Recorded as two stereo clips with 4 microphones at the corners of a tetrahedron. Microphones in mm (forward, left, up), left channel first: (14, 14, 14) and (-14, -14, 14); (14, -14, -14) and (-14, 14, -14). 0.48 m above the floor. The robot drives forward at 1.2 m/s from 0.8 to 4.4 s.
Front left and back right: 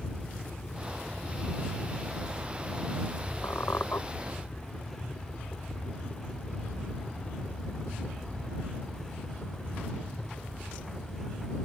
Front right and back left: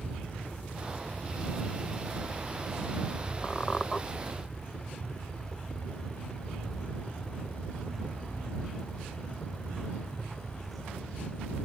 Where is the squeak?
25° left.